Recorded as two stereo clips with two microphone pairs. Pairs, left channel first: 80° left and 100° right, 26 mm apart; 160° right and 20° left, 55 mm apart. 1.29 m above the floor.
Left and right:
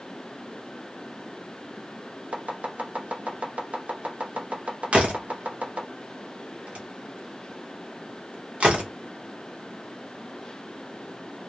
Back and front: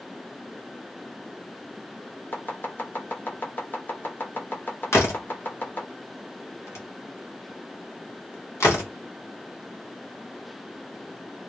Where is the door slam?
130° right, 1.1 m.